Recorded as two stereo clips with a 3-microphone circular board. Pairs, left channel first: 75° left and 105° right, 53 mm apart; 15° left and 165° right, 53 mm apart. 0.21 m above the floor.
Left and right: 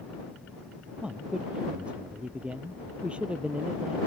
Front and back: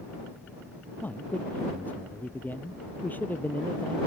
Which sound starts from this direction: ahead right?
A man speaking, at 1.0 s.